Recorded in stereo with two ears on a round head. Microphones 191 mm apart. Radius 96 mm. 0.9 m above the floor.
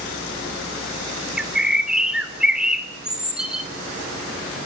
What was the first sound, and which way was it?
A bird, 5° right (ahead or behind).